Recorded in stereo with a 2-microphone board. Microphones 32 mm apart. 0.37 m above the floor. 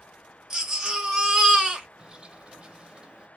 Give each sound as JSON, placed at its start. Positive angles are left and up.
{"t": 0.5, "sound": "a baby crying", "side_deg": -15, "distance_m": 1.0}
{"t": 2.0, "sound": "a bird", "side_deg": -25, "distance_m": 0.7}